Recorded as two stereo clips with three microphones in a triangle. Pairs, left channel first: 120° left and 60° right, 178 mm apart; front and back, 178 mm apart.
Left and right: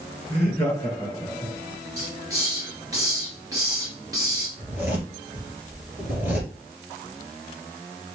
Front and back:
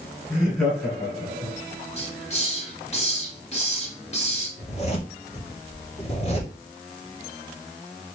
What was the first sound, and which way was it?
Laughter, 60° left.